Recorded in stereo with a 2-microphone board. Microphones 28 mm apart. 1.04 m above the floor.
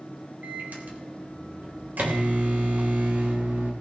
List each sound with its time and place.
0.4 s a microwave: 85° right, 3 m